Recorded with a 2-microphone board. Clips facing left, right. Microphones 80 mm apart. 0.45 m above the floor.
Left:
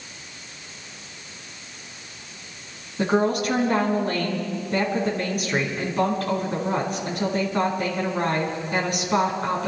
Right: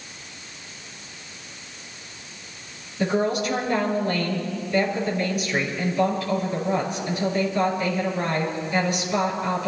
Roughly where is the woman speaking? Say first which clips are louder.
Left 2 dB; left.